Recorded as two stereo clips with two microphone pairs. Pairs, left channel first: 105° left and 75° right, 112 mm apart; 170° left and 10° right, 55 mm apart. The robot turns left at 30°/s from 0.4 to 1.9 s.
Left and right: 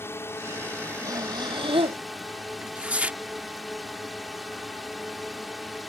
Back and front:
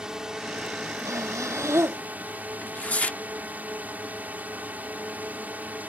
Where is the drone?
60° left; by 5.9 s 15° left.